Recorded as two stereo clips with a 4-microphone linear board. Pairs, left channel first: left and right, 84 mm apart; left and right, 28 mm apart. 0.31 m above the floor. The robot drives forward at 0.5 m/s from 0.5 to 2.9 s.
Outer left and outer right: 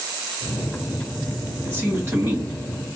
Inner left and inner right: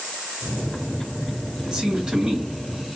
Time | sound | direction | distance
1.6 | a man speaking | 30° right (ahead or behind) | 1.7 m